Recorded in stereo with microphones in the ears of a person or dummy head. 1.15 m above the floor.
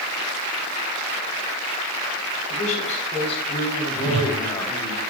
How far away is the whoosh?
About 0.7 m.